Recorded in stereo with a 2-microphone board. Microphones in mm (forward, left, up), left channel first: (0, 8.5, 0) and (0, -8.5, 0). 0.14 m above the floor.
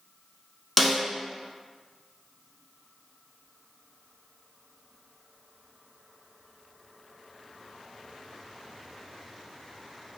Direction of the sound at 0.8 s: Centre (ahead or behind).